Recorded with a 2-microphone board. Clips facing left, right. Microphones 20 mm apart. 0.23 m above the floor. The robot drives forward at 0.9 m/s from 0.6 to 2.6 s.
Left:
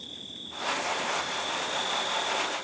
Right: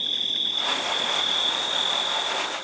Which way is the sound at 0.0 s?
65° right (ahead or behind).